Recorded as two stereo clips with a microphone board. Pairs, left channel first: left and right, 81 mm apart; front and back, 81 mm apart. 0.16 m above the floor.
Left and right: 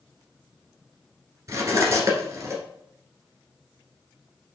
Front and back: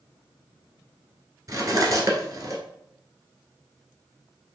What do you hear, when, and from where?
1.5 s cutlery clinking: 130° right, 1.5 m